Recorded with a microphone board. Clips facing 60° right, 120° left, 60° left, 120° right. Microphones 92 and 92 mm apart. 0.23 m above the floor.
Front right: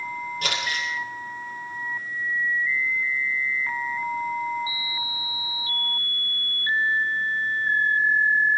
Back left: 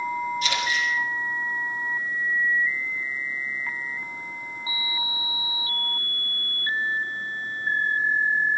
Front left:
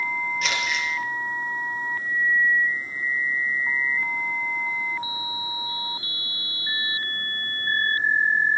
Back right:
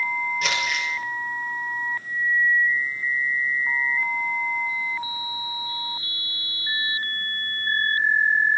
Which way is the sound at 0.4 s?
30° right.